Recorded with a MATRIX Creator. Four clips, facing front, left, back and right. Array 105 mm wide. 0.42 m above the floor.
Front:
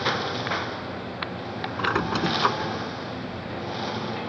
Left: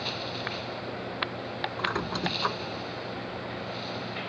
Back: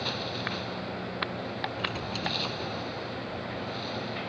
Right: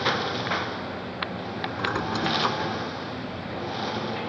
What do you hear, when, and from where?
0.0 s a lawn mower: 50° right
1.8 s a squeak: 5° right